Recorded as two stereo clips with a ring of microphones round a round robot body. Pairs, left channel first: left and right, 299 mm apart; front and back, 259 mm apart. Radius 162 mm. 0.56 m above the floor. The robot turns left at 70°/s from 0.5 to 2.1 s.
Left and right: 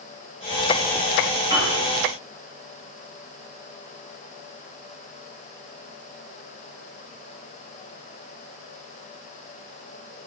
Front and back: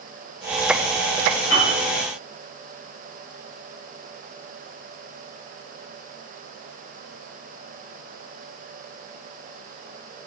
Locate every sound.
1.5 s a piano: 20° left, 1.7 m; by 1.8 s straight ahead, 1.7 m